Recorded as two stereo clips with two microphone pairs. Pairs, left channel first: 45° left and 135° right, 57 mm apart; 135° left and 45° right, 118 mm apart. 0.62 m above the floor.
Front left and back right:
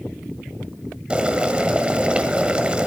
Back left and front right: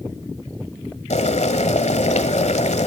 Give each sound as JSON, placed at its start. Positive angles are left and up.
{"t": 1.1, "sound": "boiling", "azimuth_deg": 155, "distance_m": 1.5}